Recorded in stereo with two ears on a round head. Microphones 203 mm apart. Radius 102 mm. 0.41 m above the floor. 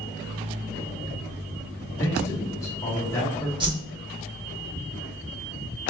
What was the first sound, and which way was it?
A man speaking, 15° left (ahead or behind).